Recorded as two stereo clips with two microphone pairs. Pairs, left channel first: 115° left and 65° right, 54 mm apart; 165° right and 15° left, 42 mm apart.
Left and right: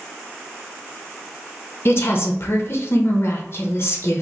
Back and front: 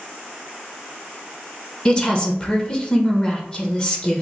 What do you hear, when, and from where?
1.9 s a woman speaking: 135° left, 0.6 m